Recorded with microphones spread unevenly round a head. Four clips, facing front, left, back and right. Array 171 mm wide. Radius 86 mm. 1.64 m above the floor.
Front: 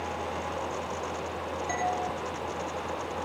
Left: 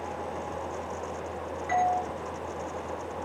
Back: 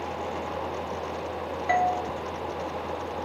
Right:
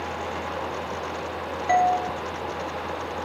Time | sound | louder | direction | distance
1.7 | a doorbell | right 6 dB, back 7 dB | 135° right | 5.5 m